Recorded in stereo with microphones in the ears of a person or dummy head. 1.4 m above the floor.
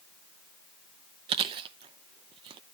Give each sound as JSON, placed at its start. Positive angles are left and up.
{"t": 1.3, "sound": "chewing", "side_deg": -30, "distance_m": 0.6}